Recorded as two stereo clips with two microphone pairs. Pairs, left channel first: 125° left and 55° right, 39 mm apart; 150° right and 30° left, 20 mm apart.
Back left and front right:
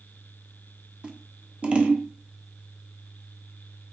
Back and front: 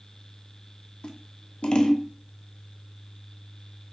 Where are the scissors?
110° right, 0.7 m.